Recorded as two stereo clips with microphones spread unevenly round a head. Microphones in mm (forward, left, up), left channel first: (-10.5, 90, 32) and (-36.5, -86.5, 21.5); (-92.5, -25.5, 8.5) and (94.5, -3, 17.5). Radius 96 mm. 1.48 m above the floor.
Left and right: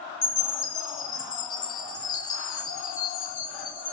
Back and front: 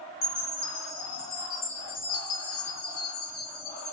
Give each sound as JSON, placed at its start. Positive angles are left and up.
{"t": 0.2, "sound": "a chime", "azimuth_deg": 145, "distance_m": 1.4}